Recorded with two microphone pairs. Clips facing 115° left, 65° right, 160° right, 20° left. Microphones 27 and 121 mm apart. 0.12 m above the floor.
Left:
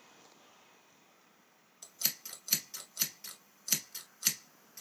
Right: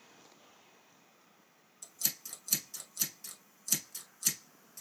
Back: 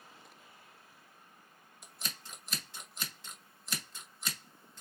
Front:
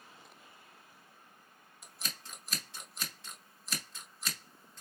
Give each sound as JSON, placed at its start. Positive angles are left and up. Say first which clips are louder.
{"t": 1.8, "sound": "scissors", "louder": "left 2 dB, even", "azimuth_deg": 115, "distance_m": 1.2}